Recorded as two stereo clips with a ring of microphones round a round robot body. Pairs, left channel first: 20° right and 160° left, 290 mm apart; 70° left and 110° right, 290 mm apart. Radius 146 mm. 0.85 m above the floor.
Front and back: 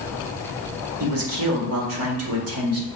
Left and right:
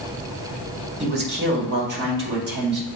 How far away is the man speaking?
About 1.9 m.